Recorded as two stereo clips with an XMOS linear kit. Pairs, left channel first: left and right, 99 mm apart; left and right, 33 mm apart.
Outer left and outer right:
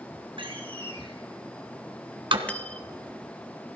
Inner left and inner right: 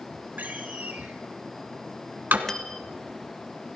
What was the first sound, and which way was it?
A door slam, 60° right (ahead or behind).